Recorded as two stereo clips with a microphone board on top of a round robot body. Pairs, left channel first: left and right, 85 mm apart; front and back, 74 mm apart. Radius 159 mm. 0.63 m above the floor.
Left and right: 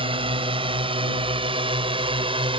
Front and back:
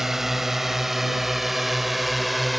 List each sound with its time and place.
0.0 s a drone: 95° right; by 2.6 s 90° right